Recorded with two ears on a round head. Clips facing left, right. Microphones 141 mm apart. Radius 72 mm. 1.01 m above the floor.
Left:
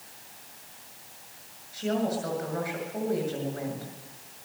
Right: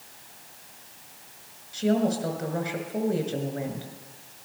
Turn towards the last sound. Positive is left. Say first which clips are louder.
# right 4 dB
turn(degrees=-30)  # may be behind; listen again after turning